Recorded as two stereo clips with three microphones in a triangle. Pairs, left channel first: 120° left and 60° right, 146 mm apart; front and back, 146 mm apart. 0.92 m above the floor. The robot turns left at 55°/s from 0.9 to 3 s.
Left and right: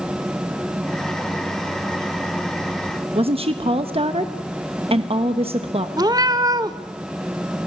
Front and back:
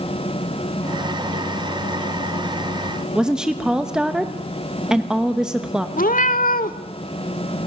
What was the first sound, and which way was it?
A woman speaking, 95° right.